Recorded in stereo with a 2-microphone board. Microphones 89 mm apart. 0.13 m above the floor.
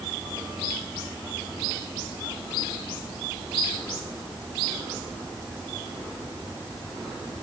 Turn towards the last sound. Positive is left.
No sound to turn to.